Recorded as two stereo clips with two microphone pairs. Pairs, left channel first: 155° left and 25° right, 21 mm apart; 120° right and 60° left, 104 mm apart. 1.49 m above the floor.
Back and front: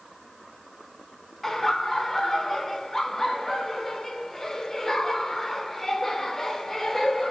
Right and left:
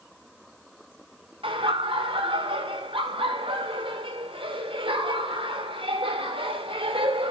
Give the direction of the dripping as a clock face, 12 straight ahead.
I don't hear dripping.